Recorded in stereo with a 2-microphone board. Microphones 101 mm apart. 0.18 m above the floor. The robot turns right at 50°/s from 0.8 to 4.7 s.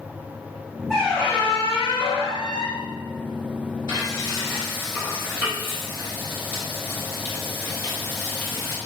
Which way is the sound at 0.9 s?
Straight ahead.